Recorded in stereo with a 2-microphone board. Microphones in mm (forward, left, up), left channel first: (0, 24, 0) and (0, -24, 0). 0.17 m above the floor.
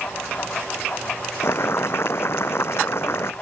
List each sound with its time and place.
1.4 s boiling: 60° left (ahead or behind)